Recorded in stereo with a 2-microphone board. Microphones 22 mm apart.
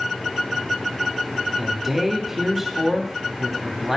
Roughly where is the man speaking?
Centre.